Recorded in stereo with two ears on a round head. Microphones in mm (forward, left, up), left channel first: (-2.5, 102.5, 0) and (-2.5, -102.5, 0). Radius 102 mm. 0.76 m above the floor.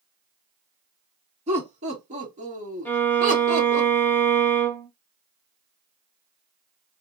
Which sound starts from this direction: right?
Laughter, at 1.5 s.